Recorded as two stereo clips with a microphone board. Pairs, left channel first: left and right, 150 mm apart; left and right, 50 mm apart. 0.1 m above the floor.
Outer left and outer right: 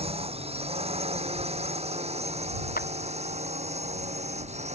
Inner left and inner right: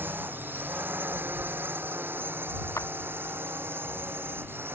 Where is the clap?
80° left.